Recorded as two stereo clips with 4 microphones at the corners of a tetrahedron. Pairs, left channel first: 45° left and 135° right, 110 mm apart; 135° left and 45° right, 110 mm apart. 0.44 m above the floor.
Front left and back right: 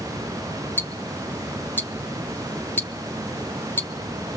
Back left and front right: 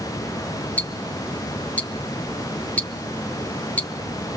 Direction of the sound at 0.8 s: 80° left.